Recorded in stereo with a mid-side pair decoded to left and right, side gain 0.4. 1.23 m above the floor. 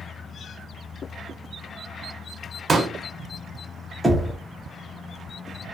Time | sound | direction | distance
2.7 | a pop | 40° right | 0.9 m
4.0 | knocking | 10° right | 0.8 m